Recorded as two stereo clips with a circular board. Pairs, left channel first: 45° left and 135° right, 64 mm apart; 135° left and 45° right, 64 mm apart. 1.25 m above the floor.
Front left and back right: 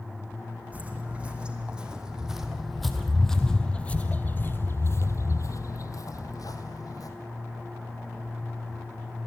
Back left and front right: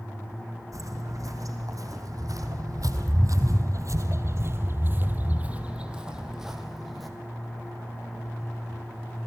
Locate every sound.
0.7 s footsteps: 70° right, 4 m; by 7.1 s 45° left, 3.5 m